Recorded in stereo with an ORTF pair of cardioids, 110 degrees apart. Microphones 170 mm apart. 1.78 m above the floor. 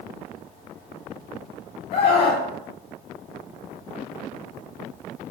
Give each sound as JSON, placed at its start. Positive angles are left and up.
{"t": 1.9, "sound": "a scream", "azimuth_deg": 65, "distance_m": 9.5}